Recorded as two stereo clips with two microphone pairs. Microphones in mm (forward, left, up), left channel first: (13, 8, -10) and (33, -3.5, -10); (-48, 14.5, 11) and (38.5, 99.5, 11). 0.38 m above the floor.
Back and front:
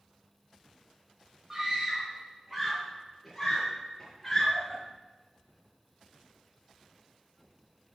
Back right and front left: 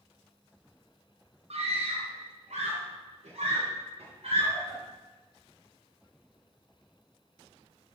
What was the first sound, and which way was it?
A scream, 30° left.